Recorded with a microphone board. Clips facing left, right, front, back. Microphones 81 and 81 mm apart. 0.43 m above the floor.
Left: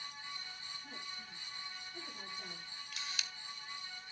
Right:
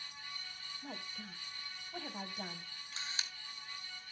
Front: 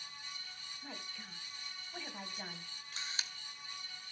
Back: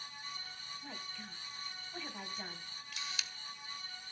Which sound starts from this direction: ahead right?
A camera shutter, at 2.9 s.